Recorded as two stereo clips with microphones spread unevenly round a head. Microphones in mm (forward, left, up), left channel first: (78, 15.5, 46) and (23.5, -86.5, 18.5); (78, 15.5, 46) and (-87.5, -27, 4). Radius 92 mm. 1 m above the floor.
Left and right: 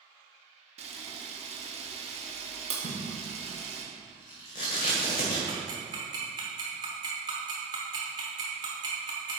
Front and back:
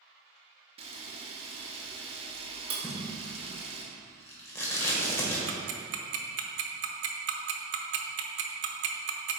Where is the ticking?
170° left, 0.8 m.